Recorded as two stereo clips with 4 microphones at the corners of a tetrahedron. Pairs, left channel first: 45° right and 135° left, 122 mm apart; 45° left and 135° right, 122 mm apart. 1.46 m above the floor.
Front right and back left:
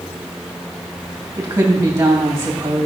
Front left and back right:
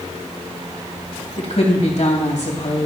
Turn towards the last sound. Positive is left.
turn(degrees=70)